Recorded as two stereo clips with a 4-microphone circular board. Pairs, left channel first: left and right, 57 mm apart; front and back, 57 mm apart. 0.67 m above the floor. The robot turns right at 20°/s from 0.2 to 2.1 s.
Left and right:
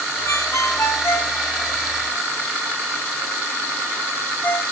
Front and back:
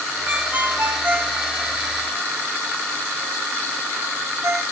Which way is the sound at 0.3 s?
115° left.